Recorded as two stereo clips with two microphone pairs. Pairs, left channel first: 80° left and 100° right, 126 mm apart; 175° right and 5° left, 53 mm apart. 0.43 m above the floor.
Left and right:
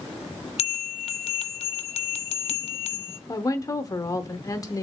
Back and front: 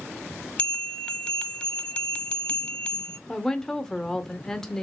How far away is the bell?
About 0.8 m.